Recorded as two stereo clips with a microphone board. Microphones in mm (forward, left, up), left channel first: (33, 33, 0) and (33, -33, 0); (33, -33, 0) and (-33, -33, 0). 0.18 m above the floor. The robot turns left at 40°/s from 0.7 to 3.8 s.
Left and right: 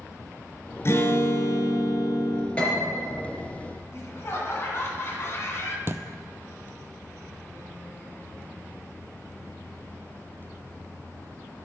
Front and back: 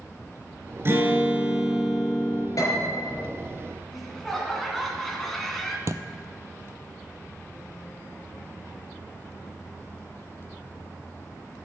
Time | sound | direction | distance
0.8 | a guitar | 135° left | 1.6 m
2.6 | a piano | 20° left | 3.5 m
3.9 | laughter | 85° left | 2 m
5.9 | a thud | 140° right | 0.6 m